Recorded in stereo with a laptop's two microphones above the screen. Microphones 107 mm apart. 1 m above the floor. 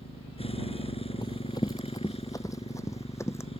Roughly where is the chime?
I don't hear a chime.